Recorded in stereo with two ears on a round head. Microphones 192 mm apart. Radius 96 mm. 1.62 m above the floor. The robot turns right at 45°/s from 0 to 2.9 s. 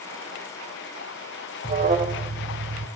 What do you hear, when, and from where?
1.6 s an alarm: 25° right (ahead or behind), 0.7 m